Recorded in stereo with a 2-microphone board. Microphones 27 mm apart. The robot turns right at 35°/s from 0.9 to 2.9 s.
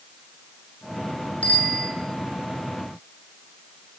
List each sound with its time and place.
1.4 s a bicycle bell: 50° left (ahead or behind), 10 m; by 1.9 s 70° left (ahead or behind), 10 m